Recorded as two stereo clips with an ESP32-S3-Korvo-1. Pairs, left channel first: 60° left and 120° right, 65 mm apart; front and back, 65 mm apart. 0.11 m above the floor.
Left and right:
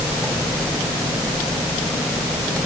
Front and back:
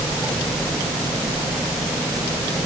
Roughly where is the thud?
I don't hear a thud.